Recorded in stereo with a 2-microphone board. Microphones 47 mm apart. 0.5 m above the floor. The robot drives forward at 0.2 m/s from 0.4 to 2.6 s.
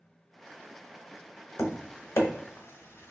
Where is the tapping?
85° left, 0.8 m; by 3.1 s 70° left (ahead or behind), 0.8 m.